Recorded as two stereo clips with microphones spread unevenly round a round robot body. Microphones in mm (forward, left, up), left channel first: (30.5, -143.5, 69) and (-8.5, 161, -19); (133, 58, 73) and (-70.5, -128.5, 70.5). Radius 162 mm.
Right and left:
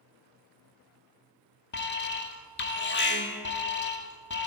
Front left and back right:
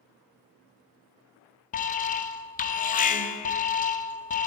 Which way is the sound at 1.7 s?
20° right.